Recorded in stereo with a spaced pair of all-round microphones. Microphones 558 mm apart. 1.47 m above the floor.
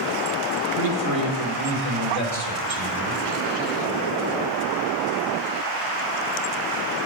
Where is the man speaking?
65° right (ahead or behind), 1.4 m; by 3.2 s 85° right, 3.5 m.